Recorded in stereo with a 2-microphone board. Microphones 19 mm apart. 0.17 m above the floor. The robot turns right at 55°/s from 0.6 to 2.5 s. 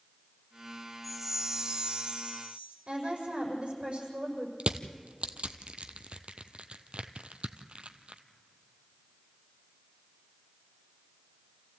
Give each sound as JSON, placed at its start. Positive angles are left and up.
{"t": 1.0, "sound": "a chime", "azimuth_deg": -175, "distance_m": 2.5}
{"t": 2.9, "sound": "a woman speaking", "side_deg": -65, "distance_m": 6.0}
{"t": 4.6, "sound": "crushing", "side_deg": -80, "distance_m": 0.9}